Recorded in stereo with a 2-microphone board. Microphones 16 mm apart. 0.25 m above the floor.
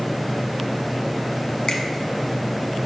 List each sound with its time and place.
1.7 s a finger snap: 60° left (ahead or behind), 1.5 m